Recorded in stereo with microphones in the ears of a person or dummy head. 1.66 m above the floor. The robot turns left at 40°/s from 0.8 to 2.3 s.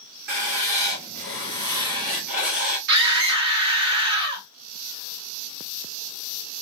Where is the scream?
65° right (ahead or behind), 1.0 m.